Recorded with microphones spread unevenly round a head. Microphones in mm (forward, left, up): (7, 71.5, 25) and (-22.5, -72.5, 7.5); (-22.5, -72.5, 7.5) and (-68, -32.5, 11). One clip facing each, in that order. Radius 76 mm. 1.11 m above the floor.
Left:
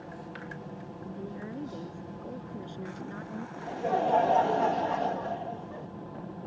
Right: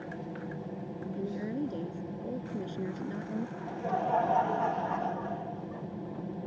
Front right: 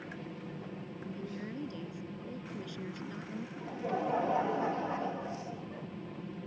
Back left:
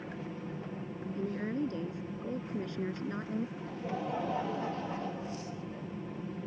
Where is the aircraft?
150° right.